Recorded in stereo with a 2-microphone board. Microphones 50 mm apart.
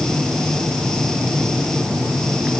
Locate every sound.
Only background noise.